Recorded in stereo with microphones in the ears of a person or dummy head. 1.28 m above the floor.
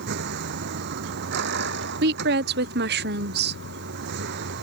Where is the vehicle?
55° right (ahead or behind).